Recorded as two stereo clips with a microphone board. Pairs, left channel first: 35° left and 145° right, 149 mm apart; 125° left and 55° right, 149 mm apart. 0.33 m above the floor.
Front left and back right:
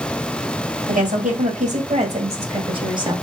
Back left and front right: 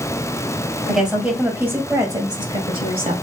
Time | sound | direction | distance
0.9 | a woman speaking | 145° right | 2.0 m